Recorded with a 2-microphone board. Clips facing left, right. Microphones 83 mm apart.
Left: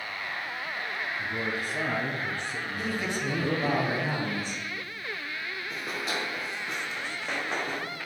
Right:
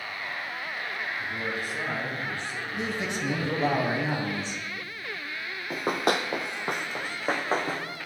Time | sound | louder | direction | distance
1.2 | a man speaking | even | 40° left (ahead or behind) | 1.3 m
2.8 | a man speaking | right 1 dB | 20° right (ahead or behind) | 1.2 m
5.7 | running footsteps | right 9 dB | 50° right (ahead or behind) | 0.7 m